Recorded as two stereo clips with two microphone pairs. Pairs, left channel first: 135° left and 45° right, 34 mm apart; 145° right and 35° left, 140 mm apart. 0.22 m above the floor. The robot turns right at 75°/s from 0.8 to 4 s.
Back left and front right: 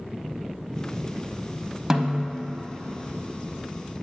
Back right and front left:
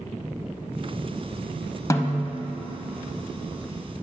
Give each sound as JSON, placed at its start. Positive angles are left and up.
{"t": 1.9, "sound": "a snare drum", "azimuth_deg": -100, "distance_m": 0.5}